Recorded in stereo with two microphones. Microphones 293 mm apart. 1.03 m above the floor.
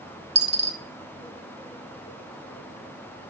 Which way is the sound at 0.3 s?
35° right (ahead or behind).